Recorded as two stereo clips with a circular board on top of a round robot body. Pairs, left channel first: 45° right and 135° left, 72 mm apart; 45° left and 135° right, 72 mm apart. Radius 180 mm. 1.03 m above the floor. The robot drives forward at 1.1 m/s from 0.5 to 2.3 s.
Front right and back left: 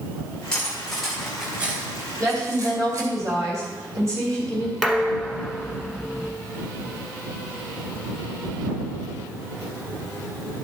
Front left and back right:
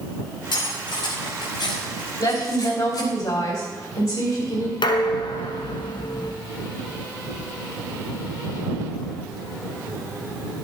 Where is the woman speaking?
90° left, 3 m.